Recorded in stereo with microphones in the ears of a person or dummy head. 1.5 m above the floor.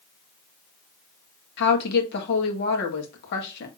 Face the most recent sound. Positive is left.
turn(degrees=60)  # may be behind; listen again after turning